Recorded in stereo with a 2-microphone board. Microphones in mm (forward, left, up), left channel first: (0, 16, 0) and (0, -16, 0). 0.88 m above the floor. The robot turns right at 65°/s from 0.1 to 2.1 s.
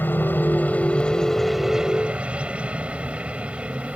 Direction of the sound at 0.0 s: 90° left.